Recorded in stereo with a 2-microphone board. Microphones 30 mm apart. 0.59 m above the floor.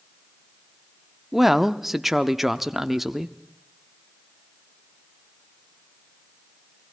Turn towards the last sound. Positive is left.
turn(degrees=-10)  # may be behind; listen again after turning